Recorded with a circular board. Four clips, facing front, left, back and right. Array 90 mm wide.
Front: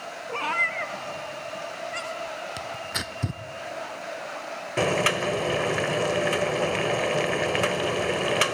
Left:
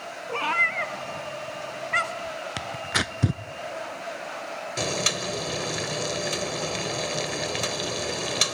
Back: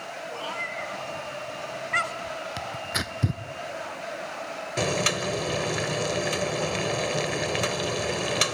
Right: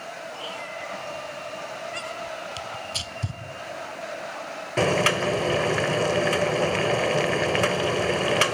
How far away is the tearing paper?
About 0.8 m.